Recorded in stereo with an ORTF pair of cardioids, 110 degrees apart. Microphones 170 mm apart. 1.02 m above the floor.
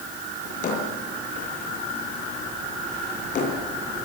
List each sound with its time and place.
0.5 s a drawer: 50° left, 9.5 m